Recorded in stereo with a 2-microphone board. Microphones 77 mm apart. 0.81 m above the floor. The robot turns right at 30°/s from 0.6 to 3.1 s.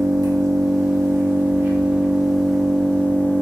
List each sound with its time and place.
0.0 s an engine running: 55° right, 0.8 m; by 3.4 s 20° left, 0.8 m